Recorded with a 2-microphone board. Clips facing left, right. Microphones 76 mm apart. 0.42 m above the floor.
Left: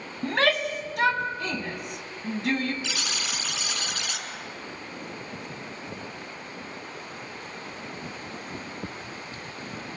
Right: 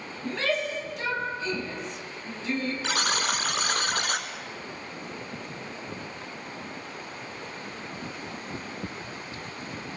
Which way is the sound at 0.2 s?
65° left (ahead or behind).